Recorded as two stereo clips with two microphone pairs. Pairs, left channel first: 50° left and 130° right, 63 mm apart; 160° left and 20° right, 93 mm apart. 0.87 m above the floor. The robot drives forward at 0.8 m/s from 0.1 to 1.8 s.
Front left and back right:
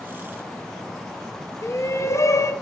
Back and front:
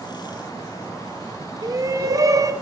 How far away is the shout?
About 0.9 m.